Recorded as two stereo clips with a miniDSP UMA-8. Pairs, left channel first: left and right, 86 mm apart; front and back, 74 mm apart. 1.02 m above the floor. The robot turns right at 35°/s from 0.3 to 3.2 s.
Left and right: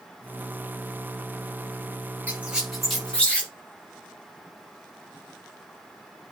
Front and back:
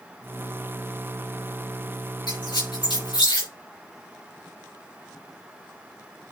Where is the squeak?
20° right, 6.5 m; by 3.5 s 15° left, 6.5 m.